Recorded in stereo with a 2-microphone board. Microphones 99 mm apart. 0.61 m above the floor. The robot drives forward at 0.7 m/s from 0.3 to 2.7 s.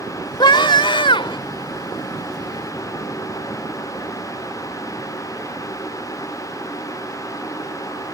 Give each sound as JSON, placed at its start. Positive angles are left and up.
{"t": 0.4, "sound": "a scream", "side_deg": 55}